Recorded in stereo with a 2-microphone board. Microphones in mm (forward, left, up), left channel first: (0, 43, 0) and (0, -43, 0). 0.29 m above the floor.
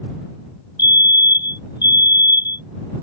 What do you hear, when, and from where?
0.8 s a fire alarm: 55° left (ahead or behind)